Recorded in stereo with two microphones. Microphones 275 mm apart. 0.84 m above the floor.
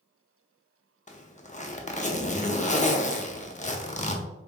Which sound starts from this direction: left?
A zipper, at 1.1 s.